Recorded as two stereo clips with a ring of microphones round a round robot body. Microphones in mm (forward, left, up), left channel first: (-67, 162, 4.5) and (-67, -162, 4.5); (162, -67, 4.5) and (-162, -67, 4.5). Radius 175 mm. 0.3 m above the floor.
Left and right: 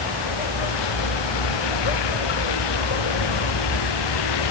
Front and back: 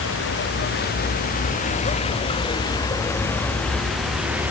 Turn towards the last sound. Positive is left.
turn(degrees=95)